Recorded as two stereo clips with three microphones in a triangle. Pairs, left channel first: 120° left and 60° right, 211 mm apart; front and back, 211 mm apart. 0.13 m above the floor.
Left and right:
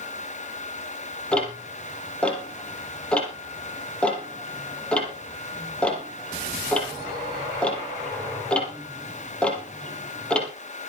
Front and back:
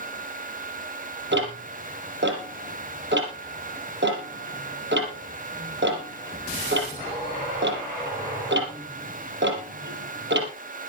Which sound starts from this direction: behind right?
Ticking, at 1.3 s.